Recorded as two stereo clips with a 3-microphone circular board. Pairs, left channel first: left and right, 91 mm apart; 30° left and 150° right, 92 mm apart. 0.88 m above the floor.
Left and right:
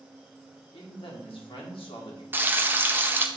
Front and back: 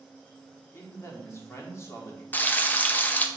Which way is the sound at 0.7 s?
85° left.